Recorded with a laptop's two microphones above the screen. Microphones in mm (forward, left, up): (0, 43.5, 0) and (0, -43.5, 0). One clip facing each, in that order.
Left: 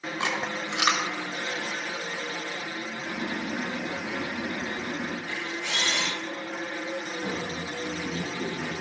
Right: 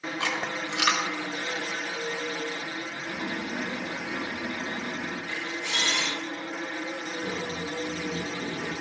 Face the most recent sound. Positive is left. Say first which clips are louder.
# even
turn(degrees=60)  # may be behind; listen again after turning